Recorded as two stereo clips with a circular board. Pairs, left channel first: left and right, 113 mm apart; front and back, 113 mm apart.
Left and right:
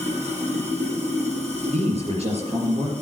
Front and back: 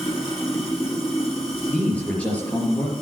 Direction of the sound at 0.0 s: 85° right.